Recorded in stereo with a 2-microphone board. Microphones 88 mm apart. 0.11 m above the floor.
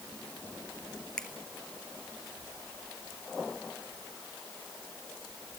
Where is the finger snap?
5° left (ahead or behind), 1.7 m.